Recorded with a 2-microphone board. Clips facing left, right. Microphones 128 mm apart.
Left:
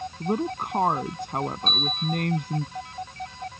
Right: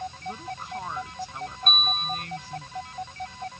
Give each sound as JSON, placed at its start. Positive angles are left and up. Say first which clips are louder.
{"t": 0.2, "sound": "a woman speaking", "louder": "left 9 dB", "side_deg": 65}
{"t": 1.7, "sound": "a bell", "louder": "left 2 dB", "side_deg": -60}